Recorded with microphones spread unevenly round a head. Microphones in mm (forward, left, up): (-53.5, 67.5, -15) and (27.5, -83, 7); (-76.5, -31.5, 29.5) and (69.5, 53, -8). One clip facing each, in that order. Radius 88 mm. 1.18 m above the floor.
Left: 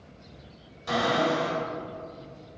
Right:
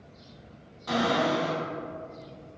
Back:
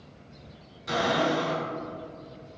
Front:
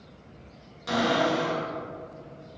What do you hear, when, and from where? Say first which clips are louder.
0.9 s a cupboard door: even, front 1 dB; 50° left, 1.8 m